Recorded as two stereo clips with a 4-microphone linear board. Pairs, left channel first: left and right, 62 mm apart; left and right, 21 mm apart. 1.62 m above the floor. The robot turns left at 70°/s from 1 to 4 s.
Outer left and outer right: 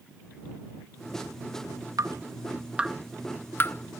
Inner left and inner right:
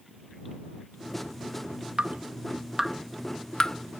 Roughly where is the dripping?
Right.